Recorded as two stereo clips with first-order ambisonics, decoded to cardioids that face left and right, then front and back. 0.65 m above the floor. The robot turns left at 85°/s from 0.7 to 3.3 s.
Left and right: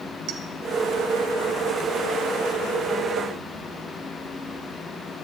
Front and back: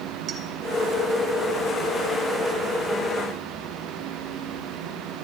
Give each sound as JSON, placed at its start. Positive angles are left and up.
{"t": 0.3, "sound": "a clink", "azimuth_deg": -125, "distance_m": 1.5}